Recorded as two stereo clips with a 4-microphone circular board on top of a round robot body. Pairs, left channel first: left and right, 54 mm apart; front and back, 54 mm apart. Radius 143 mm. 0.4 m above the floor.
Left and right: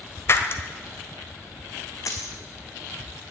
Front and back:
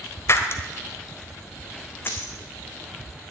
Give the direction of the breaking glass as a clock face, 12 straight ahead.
11 o'clock.